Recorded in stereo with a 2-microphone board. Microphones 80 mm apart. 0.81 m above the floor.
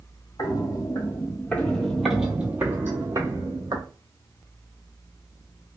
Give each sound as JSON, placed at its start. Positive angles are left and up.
{"t": 0.4, "sound": "footsteps", "side_deg": 50, "distance_m": 1.2}